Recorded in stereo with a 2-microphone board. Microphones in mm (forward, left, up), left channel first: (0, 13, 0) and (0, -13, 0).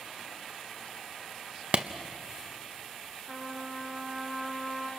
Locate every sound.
1.7 s a clap: 45° right (ahead or behind), 0.8 m
3.2 s a trumpet: 20° right (ahead or behind), 7 m